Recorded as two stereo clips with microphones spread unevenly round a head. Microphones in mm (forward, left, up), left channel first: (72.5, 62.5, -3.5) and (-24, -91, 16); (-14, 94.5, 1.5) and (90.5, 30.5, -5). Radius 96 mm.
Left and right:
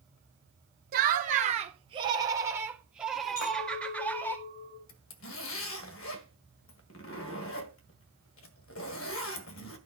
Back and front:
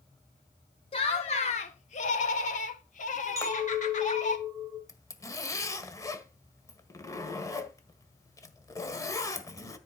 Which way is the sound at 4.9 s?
85° left.